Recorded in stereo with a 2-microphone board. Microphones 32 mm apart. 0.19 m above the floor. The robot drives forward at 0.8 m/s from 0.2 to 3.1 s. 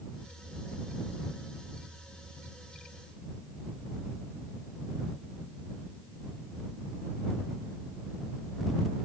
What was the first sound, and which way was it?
Only background noise.